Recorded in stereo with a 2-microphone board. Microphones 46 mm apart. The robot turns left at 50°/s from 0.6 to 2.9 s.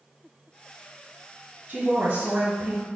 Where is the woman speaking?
65° right, 1.4 m; by 2.9 s 125° right, 1.4 m.